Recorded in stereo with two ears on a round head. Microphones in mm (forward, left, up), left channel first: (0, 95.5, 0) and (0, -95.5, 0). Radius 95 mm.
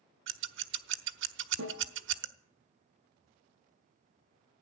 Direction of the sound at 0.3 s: 60° right (ahead or behind).